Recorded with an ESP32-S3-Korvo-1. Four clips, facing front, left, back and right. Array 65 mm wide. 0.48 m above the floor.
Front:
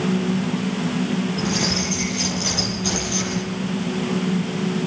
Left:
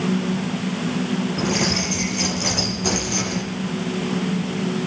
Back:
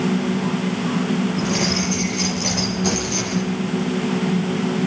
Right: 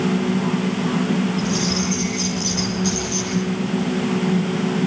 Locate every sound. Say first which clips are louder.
1.4 s keys jangling: even, back 2 dB; 125° left, 7 m; by 3.4 s 140° left, 7.5 m